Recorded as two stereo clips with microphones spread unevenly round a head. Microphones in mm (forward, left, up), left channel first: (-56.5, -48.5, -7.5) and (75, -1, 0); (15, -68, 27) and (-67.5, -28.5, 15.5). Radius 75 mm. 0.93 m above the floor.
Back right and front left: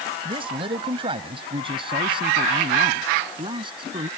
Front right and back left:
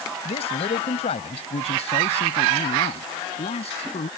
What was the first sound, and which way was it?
A man speaking, 30° right.